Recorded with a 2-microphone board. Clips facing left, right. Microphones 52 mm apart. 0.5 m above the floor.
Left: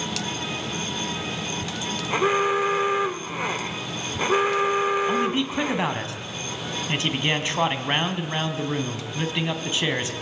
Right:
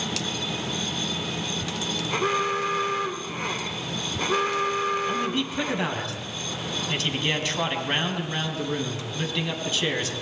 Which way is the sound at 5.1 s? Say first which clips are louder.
Left 3 dB; 20° left (ahead or behind).